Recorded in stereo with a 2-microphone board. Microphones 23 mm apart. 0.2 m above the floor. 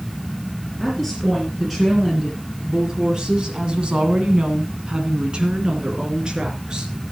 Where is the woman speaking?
10° right (ahead or behind), 4 m; by 6.9 s 30° right (ahead or behind), 4 m.